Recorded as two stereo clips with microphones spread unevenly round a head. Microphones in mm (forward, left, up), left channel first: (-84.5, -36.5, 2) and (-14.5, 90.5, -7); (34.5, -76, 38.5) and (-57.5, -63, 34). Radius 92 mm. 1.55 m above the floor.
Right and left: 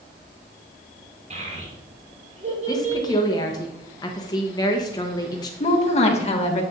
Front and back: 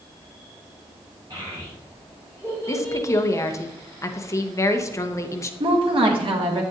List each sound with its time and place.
1.3 s a child speaking: 100° left, 3 m
2.7 s a woman speaking: 55° right, 0.7 m
5.6 s a woman speaking: 160° right, 1.6 m